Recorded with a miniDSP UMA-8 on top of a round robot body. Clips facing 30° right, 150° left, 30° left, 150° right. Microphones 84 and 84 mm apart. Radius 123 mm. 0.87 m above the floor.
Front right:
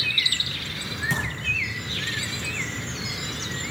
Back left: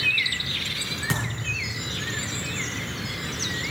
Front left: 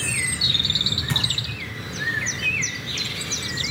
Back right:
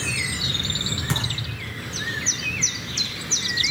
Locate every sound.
1.1 s a thud: 150° left, 7 m